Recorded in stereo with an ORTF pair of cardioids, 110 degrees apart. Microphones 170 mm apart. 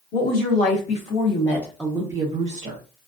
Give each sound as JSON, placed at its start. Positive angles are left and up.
{"t": 0.1, "sound": "a woman speaking", "azimuth_deg": 60, "distance_m": 1.2}